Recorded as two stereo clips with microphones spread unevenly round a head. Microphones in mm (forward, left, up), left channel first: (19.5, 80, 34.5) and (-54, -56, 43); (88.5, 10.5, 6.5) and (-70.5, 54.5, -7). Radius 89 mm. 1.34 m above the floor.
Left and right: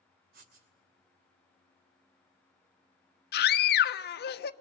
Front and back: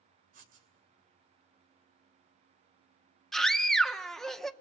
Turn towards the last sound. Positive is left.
turn(degrees=75)